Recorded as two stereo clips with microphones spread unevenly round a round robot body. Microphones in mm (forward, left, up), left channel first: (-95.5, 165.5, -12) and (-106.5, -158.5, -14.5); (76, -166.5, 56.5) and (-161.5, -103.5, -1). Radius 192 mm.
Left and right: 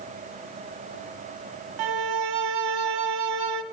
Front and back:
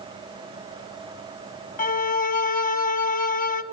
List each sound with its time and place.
1.8 s a violin: 70° right, 0.7 m